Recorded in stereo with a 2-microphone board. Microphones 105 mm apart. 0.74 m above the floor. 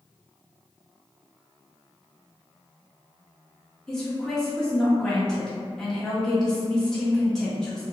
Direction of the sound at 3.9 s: 5° left (ahead or behind).